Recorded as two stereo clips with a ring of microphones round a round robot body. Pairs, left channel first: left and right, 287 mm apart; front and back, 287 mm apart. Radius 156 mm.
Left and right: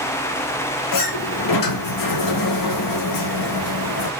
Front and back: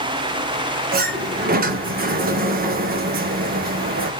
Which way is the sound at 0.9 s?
120° left.